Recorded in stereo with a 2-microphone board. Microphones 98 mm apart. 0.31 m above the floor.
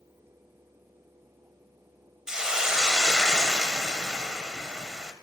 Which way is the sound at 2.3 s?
5° right (ahead or behind).